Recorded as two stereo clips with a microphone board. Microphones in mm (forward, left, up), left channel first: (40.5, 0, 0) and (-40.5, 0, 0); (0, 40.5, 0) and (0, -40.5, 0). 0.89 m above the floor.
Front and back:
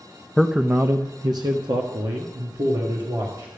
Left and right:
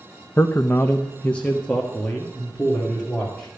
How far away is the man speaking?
About 0.5 m.